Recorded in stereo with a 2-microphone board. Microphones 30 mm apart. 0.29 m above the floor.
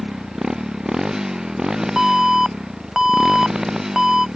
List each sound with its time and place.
0.0 s a motorcycle: 20° right (ahead or behind)
2.0 s an alarm: 20° right (ahead or behind)